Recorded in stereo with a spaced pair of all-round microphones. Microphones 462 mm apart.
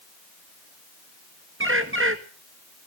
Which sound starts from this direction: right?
A bird, at 1.6 s.